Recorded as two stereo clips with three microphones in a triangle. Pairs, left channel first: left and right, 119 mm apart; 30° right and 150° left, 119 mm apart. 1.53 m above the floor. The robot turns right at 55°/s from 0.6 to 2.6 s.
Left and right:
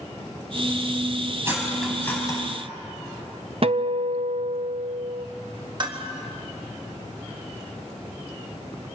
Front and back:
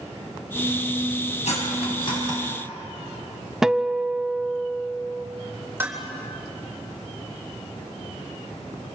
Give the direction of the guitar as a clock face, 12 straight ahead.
4 o'clock.